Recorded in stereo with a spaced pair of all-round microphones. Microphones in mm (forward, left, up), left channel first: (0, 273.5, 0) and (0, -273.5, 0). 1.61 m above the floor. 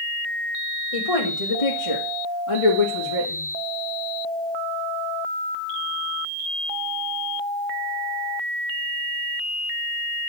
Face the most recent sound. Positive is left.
turn(degrees=55)  # may be behind; listen again after turning